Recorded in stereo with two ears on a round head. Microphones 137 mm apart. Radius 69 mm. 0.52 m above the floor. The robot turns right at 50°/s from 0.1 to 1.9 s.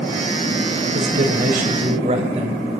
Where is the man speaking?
90° right, 3 m; by 2.8 s 45° right, 3 m.